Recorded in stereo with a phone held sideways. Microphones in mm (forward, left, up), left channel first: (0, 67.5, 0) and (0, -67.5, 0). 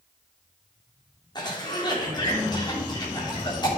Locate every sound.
1.4 s a cough: 30° left (ahead or behind), 3.5 m